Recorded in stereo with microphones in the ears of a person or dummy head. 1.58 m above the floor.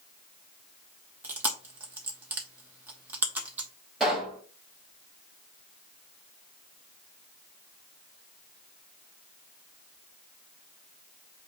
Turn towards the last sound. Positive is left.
turn(degrees=0)  # may be behind; listen again after turning